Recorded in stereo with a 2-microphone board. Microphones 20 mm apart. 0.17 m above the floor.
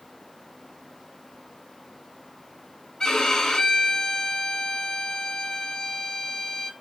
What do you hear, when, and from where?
3.0 s a violin: 35° left (ahead or behind), 0.6 m